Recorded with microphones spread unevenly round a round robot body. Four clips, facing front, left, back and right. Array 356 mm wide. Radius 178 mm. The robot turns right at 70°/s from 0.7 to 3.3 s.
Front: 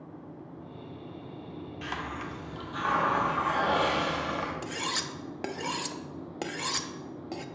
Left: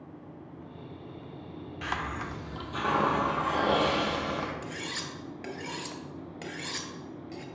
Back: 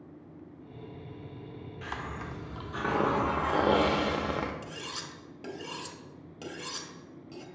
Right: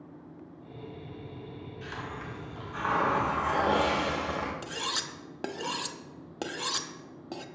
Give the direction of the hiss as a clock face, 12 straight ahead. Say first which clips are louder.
Left 6 dB, front 2 dB; 10 o'clock.